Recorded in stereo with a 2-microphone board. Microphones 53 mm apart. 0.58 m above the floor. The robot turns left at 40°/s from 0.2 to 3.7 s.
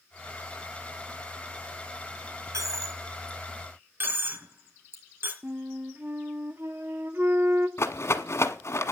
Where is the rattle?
60° left (ahead or behind), 1.1 m.